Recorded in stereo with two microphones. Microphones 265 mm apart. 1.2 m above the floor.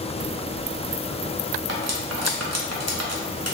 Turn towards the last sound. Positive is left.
turn(degrees=-70)  # may be behind; listen again after turning